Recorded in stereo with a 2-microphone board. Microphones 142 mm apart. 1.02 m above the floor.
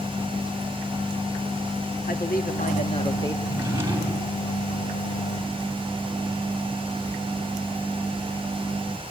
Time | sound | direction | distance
2.1 | a man speaking | 80° left | 1.7 m
3.4 | a drawer | 15° right (ahead or behind) | 4 m